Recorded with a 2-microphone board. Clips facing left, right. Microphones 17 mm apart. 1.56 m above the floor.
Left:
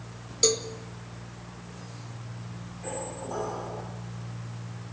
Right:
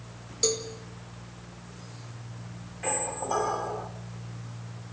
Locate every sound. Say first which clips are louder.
0.4 s a cowbell: left 3 dB; 25° left (ahead or behind), 1.7 m
2.8 s a squeak: right 5 dB; 70° right (ahead or behind), 2.5 m